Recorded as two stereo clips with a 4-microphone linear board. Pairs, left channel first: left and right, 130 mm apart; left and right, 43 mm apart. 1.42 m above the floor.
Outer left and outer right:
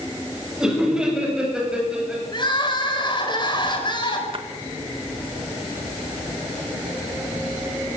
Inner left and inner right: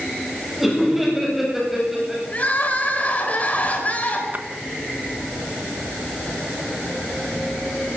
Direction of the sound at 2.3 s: 35° left (ahead or behind).